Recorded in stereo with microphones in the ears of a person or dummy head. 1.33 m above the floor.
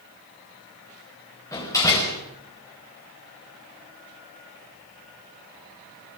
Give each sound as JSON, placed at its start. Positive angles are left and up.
{"t": 1.5, "sound": "a door slam", "side_deg": 15, "distance_m": 5.0}